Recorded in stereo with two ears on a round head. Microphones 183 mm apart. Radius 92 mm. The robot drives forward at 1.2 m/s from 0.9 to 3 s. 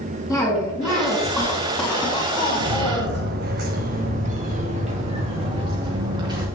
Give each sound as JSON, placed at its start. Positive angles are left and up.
{"t": 0.3, "sound": "a cough", "side_deg": 0, "distance_m": 4.5}
{"t": 2.6, "sound": "footsteps", "side_deg": -75, "distance_m": 1.7}